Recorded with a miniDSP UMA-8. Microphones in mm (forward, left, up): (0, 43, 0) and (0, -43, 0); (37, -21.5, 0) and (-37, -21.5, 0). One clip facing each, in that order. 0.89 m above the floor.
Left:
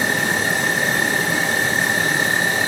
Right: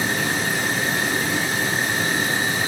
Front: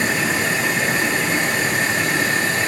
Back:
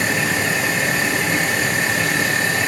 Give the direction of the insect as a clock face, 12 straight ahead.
9 o'clock.